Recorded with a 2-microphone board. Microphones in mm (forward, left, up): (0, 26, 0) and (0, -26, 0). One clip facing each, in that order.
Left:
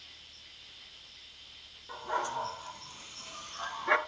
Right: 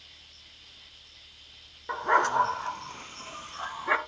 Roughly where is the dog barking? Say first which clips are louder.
Right 10 dB; right.